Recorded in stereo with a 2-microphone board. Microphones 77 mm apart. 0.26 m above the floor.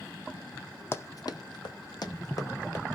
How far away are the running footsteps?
About 0.6 m.